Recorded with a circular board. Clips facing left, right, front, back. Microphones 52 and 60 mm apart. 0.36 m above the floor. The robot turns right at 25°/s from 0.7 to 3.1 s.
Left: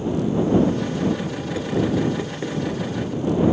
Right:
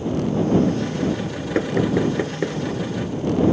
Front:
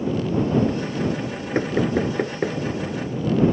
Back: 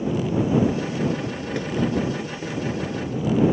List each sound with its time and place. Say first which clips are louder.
1.6 s knocking: right 2 dB, front 3 dB; 50° right; by 2.6 s 25° right